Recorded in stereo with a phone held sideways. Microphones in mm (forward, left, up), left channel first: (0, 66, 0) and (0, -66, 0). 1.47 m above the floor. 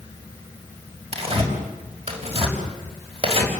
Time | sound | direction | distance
1.1 | tearing paper | 45° right (ahead or behind) | 5.5 m